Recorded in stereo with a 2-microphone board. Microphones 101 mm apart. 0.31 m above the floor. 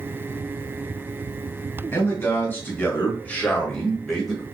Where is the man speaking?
25° left (ahead or behind), 1.9 m; by 4.4 s centre (ahead or behind), 1.2 m.